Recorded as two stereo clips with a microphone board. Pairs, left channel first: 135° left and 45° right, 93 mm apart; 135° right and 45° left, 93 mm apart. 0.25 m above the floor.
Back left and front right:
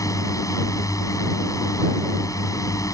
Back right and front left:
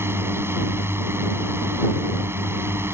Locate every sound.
0.0 s a drone: 100° left